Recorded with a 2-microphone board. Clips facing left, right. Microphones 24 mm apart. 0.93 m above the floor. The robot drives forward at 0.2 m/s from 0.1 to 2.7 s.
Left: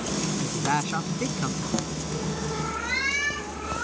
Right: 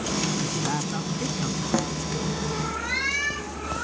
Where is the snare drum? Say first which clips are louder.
Right 7 dB; 40° right (ahead or behind).